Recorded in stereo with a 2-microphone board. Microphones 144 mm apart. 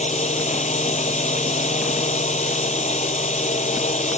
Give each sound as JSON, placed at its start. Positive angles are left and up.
{"t": 0.0, "sound": "a drone", "side_deg": 55}